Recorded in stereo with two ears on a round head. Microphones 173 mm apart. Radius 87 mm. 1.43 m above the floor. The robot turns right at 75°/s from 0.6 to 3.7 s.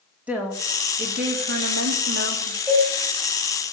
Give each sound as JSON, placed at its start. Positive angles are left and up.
{"t": 0.3, "sound": "a woman speaking", "azimuth_deg": -175, "distance_m": 4.0}
{"t": 2.7, "sound": "a cowbell", "side_deg": -5, "distance_m": 5.0}